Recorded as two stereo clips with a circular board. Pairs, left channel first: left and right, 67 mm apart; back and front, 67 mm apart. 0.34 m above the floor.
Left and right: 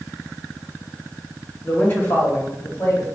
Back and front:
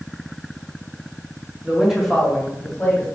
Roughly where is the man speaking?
Ahead left.